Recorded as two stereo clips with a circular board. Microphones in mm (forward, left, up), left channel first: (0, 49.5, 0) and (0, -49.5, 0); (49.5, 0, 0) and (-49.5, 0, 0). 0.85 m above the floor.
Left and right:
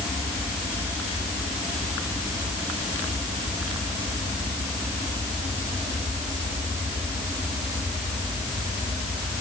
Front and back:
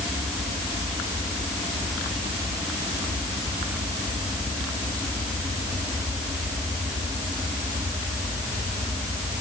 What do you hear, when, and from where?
Only background noise.